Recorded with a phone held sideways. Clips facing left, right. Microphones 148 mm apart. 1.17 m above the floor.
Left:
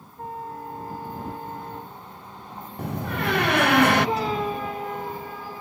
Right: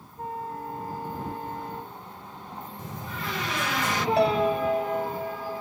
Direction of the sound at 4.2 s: 85° right.